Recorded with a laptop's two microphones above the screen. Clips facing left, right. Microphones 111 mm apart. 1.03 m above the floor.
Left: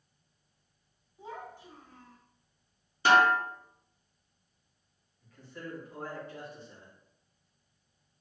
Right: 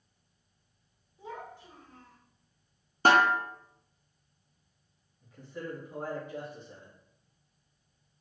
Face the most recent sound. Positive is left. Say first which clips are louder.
# right 4 dB
turn(degrees=-15)  # may be behind; listen again after turning